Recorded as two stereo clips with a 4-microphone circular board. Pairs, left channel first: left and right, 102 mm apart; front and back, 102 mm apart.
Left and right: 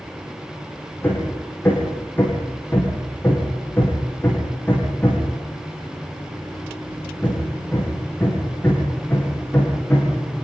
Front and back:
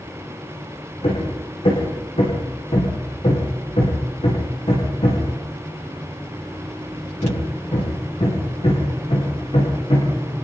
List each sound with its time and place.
1.0 s hammering: 20° left, 9.5 m